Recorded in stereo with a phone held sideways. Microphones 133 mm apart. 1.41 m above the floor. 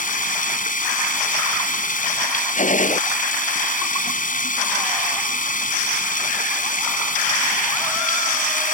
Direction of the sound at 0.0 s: 85° left.